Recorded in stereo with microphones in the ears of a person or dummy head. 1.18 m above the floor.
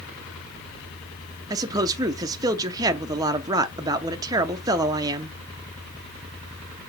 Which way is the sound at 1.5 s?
20° right (ahead or behind).